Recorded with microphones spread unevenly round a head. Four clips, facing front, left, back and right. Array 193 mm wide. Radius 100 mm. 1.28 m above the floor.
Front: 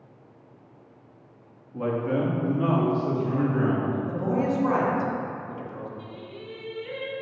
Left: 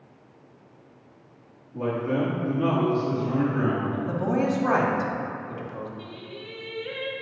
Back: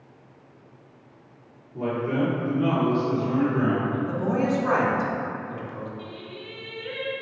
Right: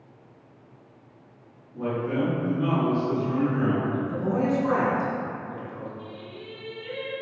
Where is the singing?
80° left, 1.9 m.